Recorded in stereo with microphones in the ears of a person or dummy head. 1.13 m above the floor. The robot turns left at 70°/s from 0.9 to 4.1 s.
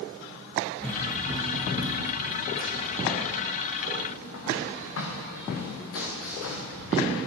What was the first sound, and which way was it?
Running footsteps, 10° left (ahead or behind).